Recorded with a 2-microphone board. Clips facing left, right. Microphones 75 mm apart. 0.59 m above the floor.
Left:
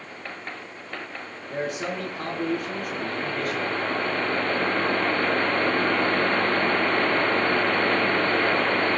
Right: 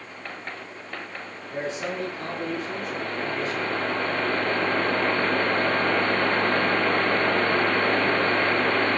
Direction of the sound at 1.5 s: 65° left (ahead or behind).